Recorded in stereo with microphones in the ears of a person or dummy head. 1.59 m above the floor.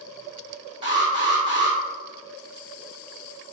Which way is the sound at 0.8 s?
30° right (ahead or behind).